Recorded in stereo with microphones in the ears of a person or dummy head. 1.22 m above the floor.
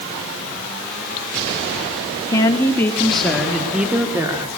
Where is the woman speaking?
25° left (ahead or behind), 2.5 m; by 4.5 s 15° right (ahead or behind), 2.5 m.